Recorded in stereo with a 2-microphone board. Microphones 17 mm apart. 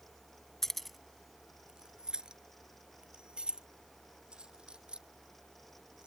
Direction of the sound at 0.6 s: 20° left (ahead or behind).